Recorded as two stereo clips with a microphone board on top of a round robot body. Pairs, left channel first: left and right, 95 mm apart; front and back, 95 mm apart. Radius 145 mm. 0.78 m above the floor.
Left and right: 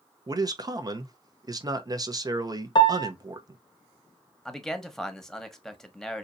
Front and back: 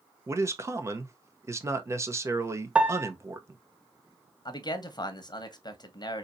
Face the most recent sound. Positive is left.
turn(degrees=5)